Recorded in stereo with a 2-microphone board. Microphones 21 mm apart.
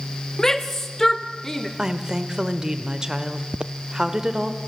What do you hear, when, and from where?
0.4 s a shout: 25° left (ahead or behind), 1.1 m; by 1.7 s 20° left (ahead or behind), 1.2 m
1.8 s a woman speaking: 30° right (ahead or behind), 1.5 m
3.5 s footsteps: 50° right (ahead or behind), 0.6 m